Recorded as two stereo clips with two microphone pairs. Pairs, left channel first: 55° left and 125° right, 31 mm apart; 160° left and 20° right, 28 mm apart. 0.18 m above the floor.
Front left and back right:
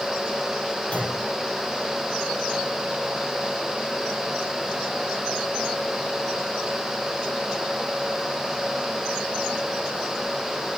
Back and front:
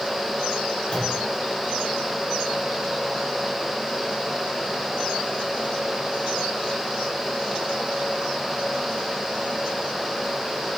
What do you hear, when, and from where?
0.9 s a clunk: 100° left, 5.5 m